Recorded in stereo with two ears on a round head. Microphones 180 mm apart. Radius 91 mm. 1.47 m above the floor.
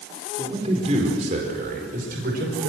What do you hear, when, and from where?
0.4 s a man speaking: 25° right (ahead or behind), 4.5 m; by 2.7 s 55° right (ahead or behind), 5.5 m